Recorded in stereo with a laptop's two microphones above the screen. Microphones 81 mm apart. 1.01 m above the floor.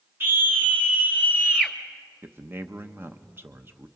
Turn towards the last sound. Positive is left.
turn(degrees=-30)  # may be behind; listen again after turning